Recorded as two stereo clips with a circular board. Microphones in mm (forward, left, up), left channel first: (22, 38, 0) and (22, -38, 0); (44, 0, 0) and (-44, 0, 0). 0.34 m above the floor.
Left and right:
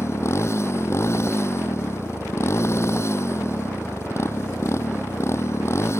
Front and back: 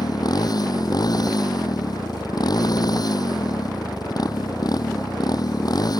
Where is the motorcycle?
40° left.